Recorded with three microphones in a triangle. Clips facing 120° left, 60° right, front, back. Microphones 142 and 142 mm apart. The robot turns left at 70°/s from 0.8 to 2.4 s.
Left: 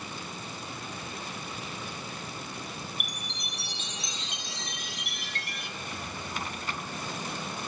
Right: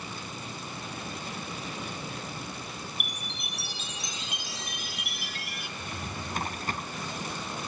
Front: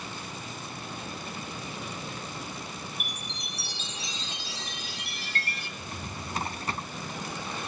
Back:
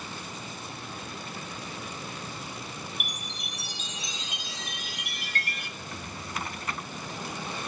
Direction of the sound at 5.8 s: 45° right.